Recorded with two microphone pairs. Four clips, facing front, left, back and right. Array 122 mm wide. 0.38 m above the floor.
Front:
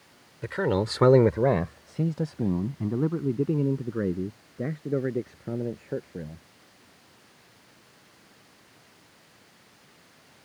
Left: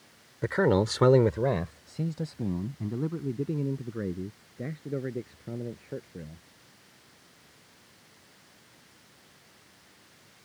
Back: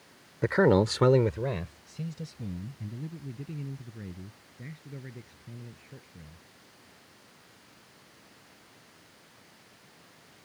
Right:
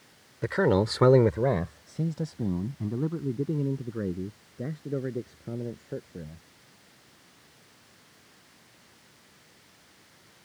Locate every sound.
0.4 s a man speaking: straight behind; by 6.4 s 5° right